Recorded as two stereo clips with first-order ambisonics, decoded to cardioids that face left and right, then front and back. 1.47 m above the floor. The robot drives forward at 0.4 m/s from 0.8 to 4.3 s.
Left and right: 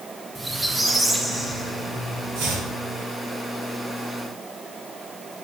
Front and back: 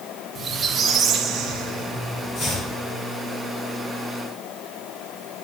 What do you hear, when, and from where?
0.3 s a squeak: 165° right, 0.5 m; by 2.2 s 175° right, 0.9 m
2.4 s chopping: 65° right, 3 m